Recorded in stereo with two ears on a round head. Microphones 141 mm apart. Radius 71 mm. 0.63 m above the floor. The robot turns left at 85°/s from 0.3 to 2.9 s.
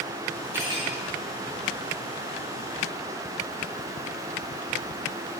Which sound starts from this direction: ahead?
Cutlery clinking, at 0.5 s.